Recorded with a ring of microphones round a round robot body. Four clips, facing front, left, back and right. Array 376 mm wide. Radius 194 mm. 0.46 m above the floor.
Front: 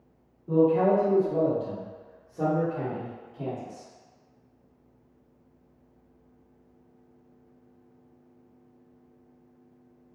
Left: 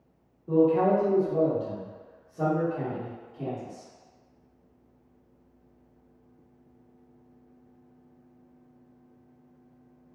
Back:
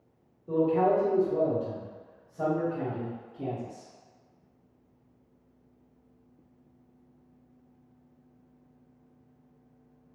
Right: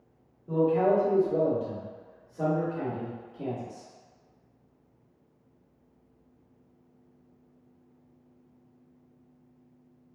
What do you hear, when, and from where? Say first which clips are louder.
0.5 s a man speaking: left 2 dB, front 3 dB; 110° left, 1.3 m; by 3.9 s 10° left, 2 m